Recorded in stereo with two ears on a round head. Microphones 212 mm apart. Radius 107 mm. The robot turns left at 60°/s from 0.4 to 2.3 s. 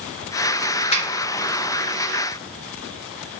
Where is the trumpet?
I don't hear a trumpet.